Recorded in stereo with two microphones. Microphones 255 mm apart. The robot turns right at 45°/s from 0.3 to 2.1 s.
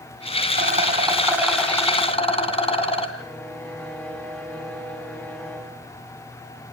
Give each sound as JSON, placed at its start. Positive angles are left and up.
{"t": 0.5, "sound": "a rattle", "azimuth_deg": -45, "distance_m": 2.5}
{"t": 3.2, "sound": "a violin", "side_deg": 5, "distance_m": 2.0}